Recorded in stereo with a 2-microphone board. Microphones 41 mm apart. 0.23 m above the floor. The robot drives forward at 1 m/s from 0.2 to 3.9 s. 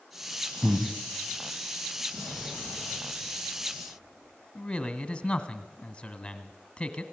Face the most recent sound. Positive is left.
turn(degrees=20)  # may be behind; listen again after turning